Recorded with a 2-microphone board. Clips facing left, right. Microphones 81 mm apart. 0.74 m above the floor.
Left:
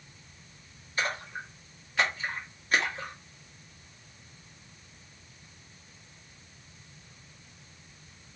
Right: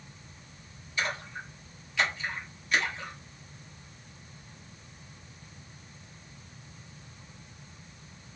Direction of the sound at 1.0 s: 45° left (ahead or behind).